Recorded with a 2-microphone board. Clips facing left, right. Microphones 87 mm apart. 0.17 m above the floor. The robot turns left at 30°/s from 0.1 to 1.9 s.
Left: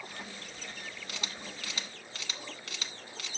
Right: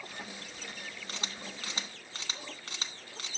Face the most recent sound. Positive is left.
turn(degrees=-35)  # may be behind; listen again after turning